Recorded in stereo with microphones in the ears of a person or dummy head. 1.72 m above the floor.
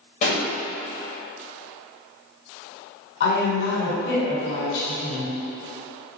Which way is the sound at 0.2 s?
45° left (ahead or behind).